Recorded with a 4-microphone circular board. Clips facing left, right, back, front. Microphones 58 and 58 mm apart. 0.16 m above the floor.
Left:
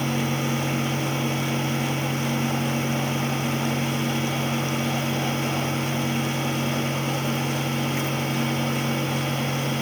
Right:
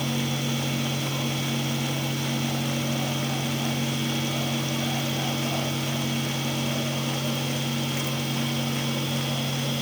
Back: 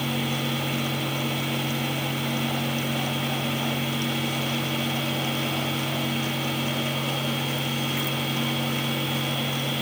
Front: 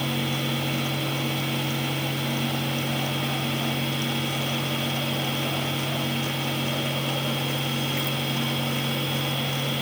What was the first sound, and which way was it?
Only background noise.